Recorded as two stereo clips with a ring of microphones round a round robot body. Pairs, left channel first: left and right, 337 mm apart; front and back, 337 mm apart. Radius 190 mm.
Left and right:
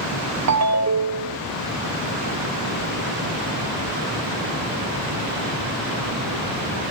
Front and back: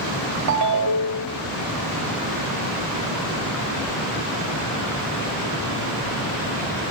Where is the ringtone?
135° right, 0.7 m.